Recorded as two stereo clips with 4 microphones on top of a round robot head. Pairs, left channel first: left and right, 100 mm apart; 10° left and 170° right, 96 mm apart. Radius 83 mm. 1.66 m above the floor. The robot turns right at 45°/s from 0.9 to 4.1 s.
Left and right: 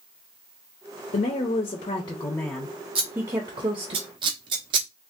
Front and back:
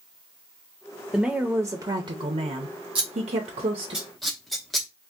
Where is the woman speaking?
105° left, 0.6 m; by 4.0 s 130° right, 0.6 m.